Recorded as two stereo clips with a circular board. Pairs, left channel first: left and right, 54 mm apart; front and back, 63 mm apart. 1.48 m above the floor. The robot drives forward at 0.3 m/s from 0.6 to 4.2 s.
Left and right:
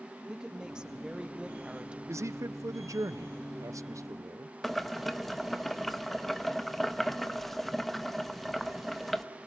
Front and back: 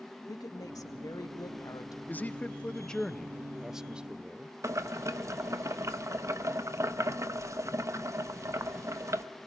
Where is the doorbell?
I don't hear a doorbell.